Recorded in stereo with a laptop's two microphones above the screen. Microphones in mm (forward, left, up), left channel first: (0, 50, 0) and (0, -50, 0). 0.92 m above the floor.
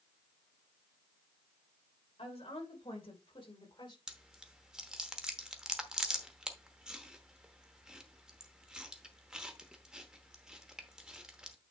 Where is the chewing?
10° right (ahead or behind), 0.9 m.